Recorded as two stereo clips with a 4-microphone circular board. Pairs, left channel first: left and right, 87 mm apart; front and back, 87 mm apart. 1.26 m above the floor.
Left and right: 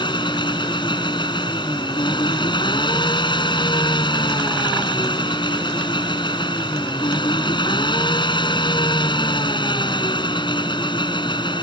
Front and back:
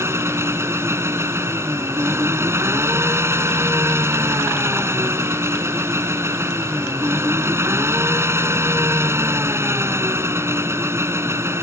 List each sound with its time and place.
0.0 s an engine running: 120° left